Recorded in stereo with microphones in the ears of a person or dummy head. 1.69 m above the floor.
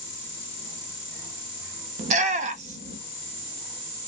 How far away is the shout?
About 0.7 m.